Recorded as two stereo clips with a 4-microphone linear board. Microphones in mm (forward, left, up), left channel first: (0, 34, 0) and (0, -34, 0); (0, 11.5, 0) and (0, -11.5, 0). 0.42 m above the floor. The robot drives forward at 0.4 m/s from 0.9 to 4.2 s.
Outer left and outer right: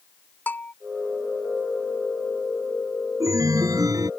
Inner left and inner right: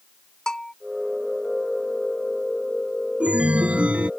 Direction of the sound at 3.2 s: 60° right (ahead or behind).